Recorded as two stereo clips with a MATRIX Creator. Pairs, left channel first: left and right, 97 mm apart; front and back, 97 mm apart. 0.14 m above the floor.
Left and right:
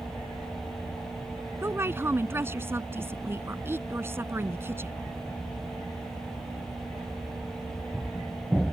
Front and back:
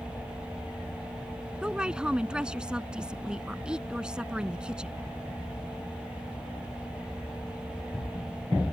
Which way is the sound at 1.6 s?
110° right.